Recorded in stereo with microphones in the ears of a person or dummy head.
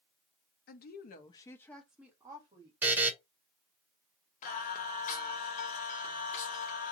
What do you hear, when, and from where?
0.7 s a woman speaking: 50° left (ahead or behind), 0.7 m; by 2.7 s 25° right (ahead or behind), 0.9 m
2.8 s a buzzer: 5° right (ahead or behind), 0.5 m
4.4 s singing: 45° left (ahead or behind), 0.6 m